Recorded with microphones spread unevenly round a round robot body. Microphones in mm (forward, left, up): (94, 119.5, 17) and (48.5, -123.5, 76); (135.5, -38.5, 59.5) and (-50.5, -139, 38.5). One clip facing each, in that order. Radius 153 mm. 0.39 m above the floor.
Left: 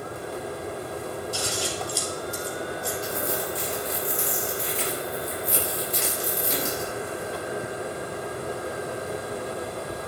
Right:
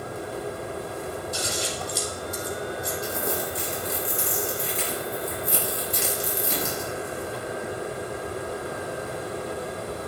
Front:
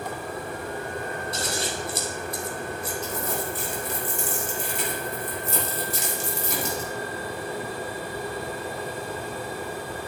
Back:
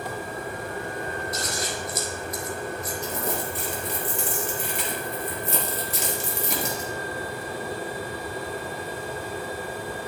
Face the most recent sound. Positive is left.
turn(degrees=-125)